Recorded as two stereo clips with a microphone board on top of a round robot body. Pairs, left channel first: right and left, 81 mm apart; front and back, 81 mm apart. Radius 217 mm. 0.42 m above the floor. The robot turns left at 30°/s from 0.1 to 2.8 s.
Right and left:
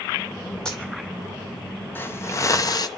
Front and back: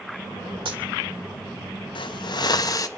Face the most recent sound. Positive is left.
turn(degrees=-50)